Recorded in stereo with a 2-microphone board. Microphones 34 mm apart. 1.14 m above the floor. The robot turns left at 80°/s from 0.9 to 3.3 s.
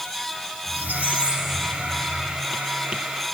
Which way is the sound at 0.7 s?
125° right.